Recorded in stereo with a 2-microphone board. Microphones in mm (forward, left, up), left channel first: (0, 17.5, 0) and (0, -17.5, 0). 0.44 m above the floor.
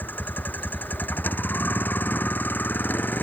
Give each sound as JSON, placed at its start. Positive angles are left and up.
{"t": 0.0, "sound": "a vehicle", "side_deg": 65}